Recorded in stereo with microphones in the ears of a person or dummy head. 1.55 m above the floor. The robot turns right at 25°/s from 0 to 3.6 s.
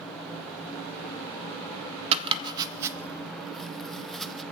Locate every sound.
2.1 s chopping: 35° right (ahead or behind), 0.6 m; by 4.4 s 5° left (ahead or behind), 0.6 m